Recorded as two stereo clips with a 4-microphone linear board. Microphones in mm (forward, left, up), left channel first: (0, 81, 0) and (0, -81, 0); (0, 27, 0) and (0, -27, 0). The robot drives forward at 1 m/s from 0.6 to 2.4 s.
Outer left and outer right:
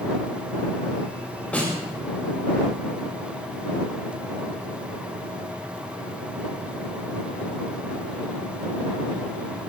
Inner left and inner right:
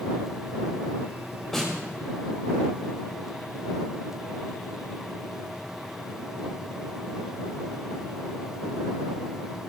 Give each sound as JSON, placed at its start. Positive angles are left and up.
{"t": 1.5, "sound": "a snare drum", "side_deg": 10, "distance_m": 5.0}